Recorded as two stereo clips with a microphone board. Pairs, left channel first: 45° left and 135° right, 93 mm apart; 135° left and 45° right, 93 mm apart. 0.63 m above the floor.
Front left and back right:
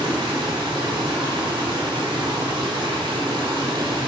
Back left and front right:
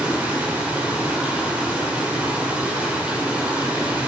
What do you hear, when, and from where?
0.0 s running water: 120° right, 2 m